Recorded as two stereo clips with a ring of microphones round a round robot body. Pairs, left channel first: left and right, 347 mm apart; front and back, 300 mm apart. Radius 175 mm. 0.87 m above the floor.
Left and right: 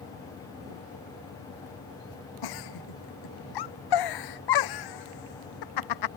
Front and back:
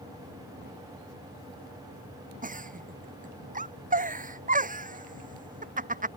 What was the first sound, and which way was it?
A giggle, 115° left.